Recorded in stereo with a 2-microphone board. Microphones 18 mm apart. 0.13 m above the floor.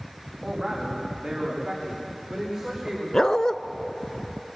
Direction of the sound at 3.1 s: 35° left (ahead or behind).